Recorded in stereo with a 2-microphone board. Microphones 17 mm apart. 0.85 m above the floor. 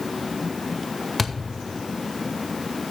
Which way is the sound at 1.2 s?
10° left (ahead or behind).